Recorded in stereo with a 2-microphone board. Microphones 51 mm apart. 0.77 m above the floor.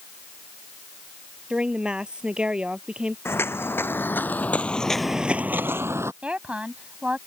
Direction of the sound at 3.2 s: 50° left (ahead or behind).